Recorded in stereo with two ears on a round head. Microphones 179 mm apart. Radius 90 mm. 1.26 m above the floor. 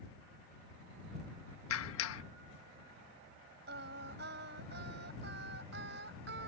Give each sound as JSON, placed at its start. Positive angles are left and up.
{"t": 1.7, "sound": "a clap", "side_deg": 80}
{"t": 3.7, "sound": "singing", "side_deg": -55}